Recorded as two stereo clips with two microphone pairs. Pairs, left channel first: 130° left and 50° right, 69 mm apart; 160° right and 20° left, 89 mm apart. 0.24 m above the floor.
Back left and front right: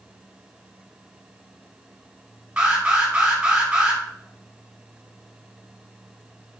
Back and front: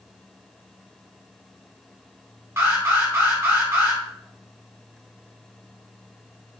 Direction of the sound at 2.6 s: Straight ahead.